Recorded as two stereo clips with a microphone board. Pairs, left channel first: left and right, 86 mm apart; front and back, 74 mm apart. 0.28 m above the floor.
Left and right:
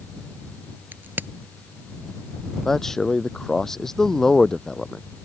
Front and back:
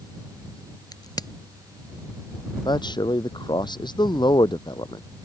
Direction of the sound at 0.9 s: 25° right.